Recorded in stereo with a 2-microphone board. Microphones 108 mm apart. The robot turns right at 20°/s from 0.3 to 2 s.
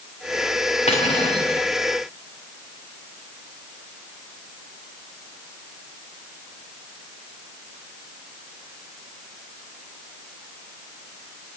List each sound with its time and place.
0.9 s cutlery clinking: 85° left, 8.5 m; by 1.5 s 75° left (ahead or behind), 8.5 m